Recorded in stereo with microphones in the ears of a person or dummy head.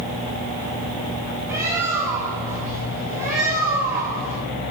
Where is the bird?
20° right (ahead or behind), 6 m.